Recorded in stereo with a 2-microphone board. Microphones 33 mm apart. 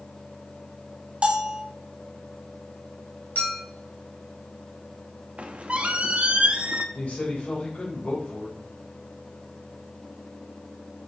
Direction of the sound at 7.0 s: 55° left (ahead or behind).